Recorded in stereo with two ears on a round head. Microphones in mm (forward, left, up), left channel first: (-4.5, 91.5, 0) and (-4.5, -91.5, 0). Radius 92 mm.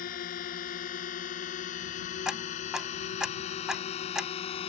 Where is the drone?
45° left (ahead or behind); by 4.7 s 30° left (ahead or behind).